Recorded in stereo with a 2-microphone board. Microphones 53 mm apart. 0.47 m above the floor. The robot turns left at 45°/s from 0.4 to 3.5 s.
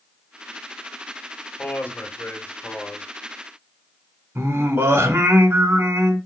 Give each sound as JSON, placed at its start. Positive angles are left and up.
{"t": 1.6, "sound": "a man speaking", "azimuth_deg": 130, "distance_m": 0.9}
{"t": 4.3, "sound": "singing", "side_deg": -55, "distance_m": 0.7}